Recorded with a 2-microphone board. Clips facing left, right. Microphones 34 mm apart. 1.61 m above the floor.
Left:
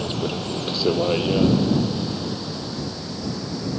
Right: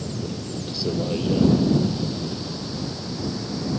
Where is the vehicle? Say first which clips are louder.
Left 5 dB; 65° left (ahead or behind); by 3.8 s centre (ahead or behind).